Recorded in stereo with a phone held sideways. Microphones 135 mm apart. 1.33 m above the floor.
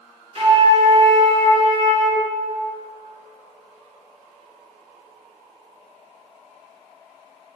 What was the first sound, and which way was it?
A flute, 50° right (ahead or behind).